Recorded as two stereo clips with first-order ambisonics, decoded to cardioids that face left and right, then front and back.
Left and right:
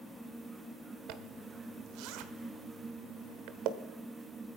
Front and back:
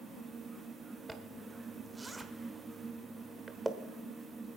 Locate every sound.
1.1 s a zipper: 100° right, 1.2 m